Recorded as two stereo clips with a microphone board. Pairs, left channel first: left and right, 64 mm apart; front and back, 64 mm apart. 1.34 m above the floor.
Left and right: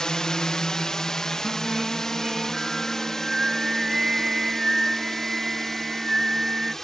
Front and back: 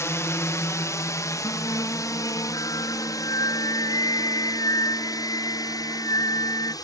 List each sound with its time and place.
0.0 s a drone: 10° left; by 6.8 s 5° left
1.4 s singing: 10° right